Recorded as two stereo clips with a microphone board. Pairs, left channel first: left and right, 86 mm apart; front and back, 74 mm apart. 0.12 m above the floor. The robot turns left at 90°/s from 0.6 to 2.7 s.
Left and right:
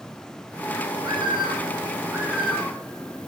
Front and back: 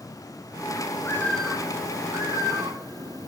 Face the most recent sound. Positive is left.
turn(degrees=160)